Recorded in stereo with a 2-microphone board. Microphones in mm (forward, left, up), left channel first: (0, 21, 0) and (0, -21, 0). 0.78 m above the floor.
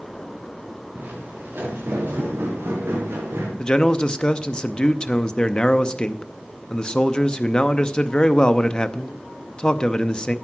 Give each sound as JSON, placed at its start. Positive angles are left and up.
{"t": 0.9, "sound": "footsteps", "side_deg": -50, "distance_m": 4.0}
{"t": 3.6, "sound": "a man speaking", "side_deg": 20, "distance_m": 0.6}